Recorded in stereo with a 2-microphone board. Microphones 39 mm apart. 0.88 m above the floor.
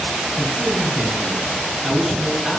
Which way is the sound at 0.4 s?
Centre (ahead or behind).